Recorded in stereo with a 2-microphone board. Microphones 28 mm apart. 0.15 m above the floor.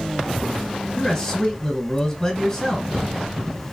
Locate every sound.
1.0 s a man speaking: 25° left (ahead or behind), 1.3 m